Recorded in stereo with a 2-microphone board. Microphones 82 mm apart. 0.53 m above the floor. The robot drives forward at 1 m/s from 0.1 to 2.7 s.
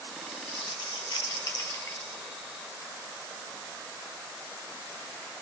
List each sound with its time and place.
0.3 s crumpling: 60° left (ahead or behind), 1.1 m; by 2.2 s 35° left (ahead or behind), 1.7 m